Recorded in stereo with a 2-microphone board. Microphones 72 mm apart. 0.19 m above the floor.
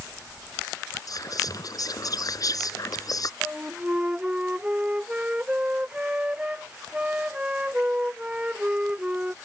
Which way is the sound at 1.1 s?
60° left (ahead or behind).